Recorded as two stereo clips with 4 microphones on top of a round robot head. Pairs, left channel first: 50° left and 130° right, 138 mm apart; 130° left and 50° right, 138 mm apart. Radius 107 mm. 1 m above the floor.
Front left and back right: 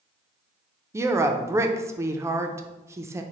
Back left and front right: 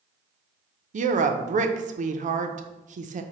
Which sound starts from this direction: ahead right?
A woman speaking, at 0.9 s.